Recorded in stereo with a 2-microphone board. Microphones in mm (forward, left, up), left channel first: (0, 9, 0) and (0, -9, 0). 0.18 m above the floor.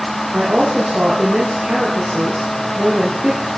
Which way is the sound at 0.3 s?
80° right.